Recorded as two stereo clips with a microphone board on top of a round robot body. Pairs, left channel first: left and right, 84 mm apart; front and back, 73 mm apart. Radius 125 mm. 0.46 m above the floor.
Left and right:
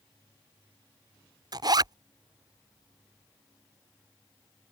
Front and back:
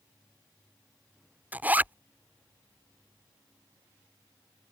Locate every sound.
1.5 s a zipper: 115° right